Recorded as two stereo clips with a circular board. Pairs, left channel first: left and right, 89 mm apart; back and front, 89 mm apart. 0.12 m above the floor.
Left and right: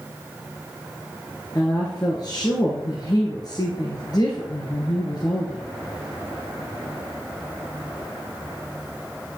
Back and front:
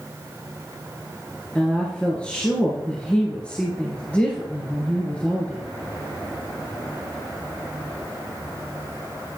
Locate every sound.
1.6 s a woman speaking: 105° left, 2.5 m